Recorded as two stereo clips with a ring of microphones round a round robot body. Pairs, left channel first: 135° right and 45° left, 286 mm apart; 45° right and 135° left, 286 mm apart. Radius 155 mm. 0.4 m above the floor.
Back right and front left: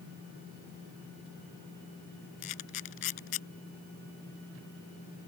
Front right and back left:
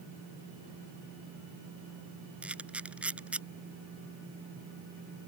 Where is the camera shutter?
140° right.